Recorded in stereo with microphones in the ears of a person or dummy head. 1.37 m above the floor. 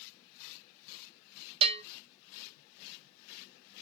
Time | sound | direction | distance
1.6 | a bell | 30° right (ahead or behind) | 0.7 m